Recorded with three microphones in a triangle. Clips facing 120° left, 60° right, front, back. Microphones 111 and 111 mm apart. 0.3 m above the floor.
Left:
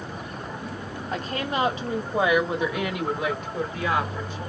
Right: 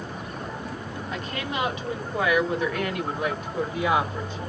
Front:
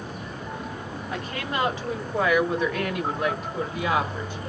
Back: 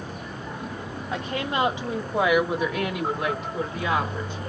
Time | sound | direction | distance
1.1 | a woman speaking | 125° left | 1.7 m